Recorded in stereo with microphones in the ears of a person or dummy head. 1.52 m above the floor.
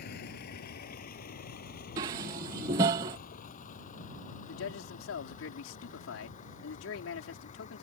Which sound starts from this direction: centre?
Dishes clattering, at 2.0 s.